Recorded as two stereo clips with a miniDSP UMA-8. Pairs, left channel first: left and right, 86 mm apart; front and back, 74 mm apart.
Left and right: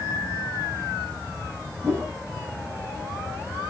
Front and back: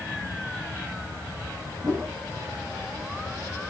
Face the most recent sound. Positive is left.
turn(degrees=-150)